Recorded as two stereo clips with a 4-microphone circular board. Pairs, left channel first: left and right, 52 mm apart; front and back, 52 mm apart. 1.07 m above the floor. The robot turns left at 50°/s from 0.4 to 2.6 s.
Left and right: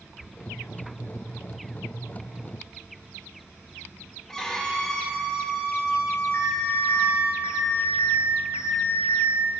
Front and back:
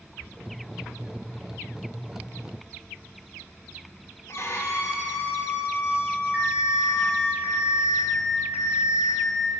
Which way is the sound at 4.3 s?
10° left.